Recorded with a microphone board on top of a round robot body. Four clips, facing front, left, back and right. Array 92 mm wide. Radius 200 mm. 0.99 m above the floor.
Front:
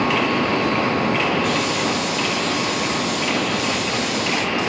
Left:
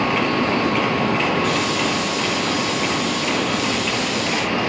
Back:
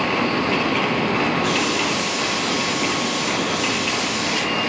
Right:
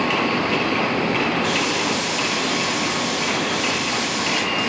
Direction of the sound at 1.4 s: 100° right.